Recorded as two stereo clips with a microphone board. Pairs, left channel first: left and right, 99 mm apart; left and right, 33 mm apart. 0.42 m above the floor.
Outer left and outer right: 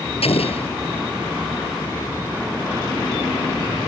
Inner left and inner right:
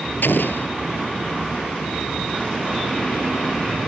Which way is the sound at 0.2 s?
80° left.